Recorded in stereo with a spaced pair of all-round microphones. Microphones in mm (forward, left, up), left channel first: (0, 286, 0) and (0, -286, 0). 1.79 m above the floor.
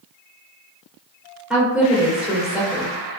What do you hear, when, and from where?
1.5 s a woman speaking: centre (ahead or behind), 1.5 m